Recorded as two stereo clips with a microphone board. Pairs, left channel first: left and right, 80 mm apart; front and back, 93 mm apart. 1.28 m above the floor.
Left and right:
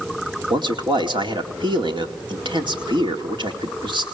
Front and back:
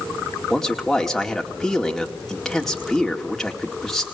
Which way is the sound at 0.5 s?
85° right.